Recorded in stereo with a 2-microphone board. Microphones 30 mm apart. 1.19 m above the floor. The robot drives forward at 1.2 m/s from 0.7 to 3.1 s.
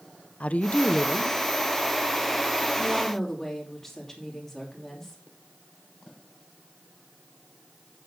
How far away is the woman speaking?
About 0.6 m.